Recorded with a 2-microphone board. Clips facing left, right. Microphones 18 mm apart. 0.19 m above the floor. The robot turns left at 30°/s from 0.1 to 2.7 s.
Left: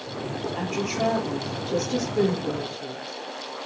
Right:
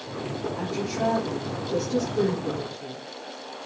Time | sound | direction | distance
0.6 | a woman speaking | 110° left | 5.5 m